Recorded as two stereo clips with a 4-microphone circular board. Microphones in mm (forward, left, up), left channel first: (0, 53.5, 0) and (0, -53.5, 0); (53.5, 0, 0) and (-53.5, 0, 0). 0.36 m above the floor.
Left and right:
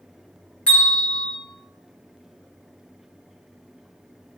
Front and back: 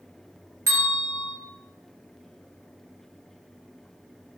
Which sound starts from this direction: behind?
A bell, at 0.7 s.